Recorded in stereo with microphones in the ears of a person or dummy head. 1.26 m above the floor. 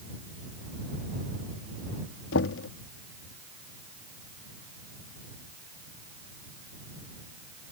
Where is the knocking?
85° left.